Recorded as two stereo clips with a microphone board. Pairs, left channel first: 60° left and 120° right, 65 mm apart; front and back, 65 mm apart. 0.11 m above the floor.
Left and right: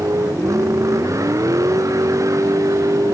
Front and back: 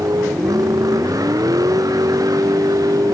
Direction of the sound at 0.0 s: 155° right.